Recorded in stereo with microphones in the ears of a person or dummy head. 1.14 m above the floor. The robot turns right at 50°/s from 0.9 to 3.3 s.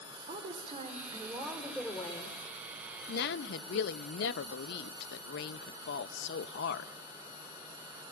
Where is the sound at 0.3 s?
35° right, 3.5 m; by 2.4 s 35° left, 3.5 m.